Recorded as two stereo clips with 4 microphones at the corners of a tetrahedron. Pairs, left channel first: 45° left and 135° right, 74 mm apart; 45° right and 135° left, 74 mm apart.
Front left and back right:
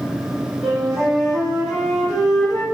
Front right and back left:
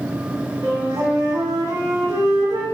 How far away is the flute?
About 1.2 m.